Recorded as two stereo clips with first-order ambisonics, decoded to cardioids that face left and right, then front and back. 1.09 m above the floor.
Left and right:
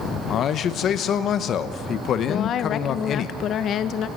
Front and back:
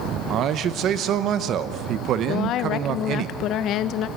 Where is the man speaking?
140° left, 1.0 m.